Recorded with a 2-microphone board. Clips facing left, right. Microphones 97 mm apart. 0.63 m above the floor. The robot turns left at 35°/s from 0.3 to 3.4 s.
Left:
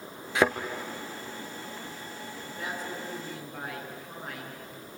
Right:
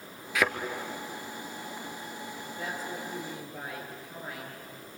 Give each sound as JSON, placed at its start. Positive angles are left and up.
{"t": 0.3, "sound": "a thud", "side_deg": 25, "distance_m": 1.5}
{"t": 2.4, "sound": "a woman speaking", "azimuth_deg": 130, "distance_m": 7.5}